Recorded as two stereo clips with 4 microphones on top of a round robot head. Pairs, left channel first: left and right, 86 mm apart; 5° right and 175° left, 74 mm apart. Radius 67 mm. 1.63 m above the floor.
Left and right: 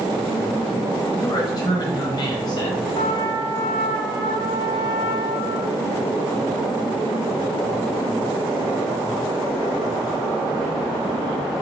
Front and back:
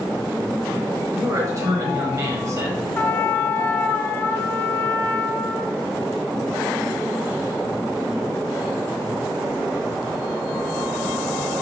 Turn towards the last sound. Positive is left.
turn(degrees=60)